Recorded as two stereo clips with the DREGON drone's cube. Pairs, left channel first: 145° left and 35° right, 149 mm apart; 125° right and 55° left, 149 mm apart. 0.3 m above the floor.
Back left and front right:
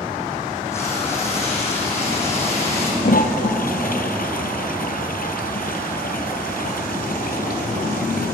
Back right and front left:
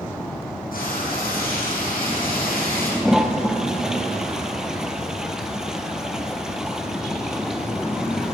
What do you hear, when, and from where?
0.7 s frying: 140° right, 4.5 m
3.0 s a toilet flushing: 140° left, 1.0 m